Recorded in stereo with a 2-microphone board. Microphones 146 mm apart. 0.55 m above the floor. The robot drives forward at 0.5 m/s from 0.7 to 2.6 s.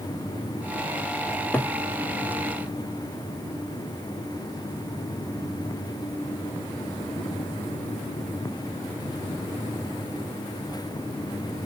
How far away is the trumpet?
No trumpet in this recording.